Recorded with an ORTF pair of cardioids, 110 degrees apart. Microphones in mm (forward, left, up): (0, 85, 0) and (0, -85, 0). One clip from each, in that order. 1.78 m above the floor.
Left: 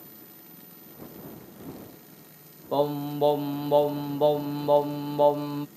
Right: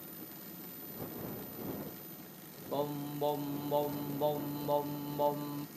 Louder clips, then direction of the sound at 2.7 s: Left 11 dB; 50° left.